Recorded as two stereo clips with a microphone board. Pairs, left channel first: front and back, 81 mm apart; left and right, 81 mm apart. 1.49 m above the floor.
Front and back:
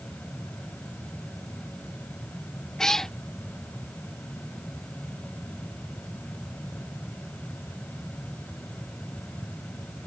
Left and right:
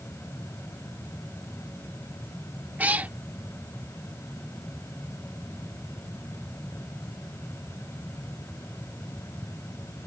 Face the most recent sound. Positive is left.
turn(degrees=-70)